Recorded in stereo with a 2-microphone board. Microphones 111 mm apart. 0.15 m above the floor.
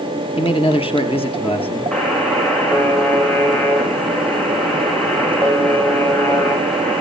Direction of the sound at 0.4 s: 60° left (ahead or behind).